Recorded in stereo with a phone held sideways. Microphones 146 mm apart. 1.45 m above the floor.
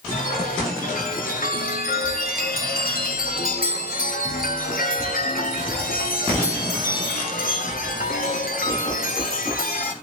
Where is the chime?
85° left, 3.5 m.